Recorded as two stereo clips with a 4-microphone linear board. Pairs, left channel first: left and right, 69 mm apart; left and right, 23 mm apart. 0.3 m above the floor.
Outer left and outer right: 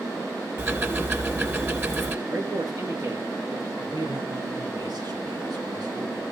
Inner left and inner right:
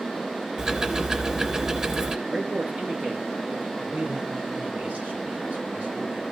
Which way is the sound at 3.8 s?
65° right (ahead or behind).